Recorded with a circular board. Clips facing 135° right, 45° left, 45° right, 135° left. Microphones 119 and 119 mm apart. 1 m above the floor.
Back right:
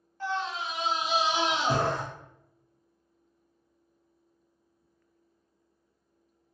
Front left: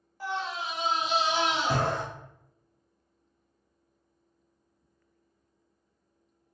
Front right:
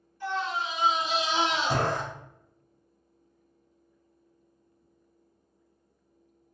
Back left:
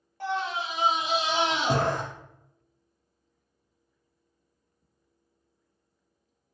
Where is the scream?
125° left, 1.8 m; by 2.0 s 170° left, 1.5 m.